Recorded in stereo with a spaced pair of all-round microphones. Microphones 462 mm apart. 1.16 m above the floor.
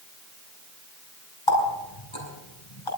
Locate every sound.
1.5 s a running tap: 85° left, 4.5 m